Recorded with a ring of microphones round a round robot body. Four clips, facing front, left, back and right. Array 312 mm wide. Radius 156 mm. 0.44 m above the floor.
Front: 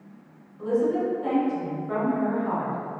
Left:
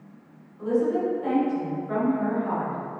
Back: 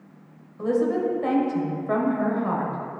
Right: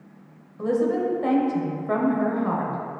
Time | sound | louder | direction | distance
0.6 | a woman speaking | right 1 dB, back 1 dB | 135° right | 1.7 m